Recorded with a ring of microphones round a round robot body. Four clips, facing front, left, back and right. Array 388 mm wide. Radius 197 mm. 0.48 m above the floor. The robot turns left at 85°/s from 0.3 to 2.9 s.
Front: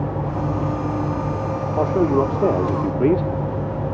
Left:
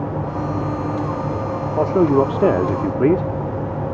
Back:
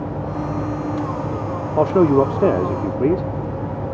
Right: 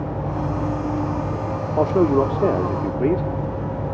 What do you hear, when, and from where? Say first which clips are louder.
1.8 s a man speaking: left 2 dB, back 4 dB; straight behind, 0.8 m; by 3.3 s 85° left, 0.8 m